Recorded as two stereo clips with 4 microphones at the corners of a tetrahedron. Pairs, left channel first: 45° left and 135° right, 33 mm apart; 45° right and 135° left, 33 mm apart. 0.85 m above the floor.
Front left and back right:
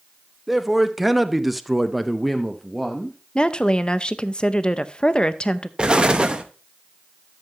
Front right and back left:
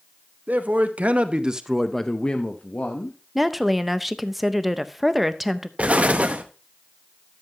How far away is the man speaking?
About 1.1 m.